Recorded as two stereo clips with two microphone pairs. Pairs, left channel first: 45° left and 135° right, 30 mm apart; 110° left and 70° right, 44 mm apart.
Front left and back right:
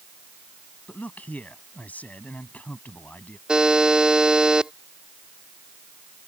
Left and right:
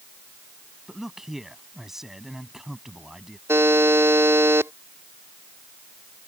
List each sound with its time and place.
0.9 s a man speaking: 15° left
3.5 s a buzzer: 75° right